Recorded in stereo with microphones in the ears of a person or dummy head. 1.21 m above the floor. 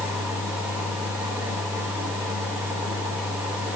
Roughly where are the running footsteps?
I don't hear running footsteps.